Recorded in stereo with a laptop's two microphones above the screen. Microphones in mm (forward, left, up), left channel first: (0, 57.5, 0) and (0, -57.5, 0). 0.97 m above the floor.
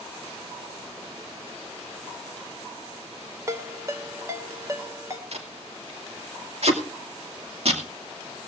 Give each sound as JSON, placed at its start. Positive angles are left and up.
{"t": 3.5, "sound": "a ringtone", "side_deg": -25, "distance_m": 1.7}
{"t": 5.3, "sound": "tape being pulled", "side_deg": -65, "distance_m": 2.5}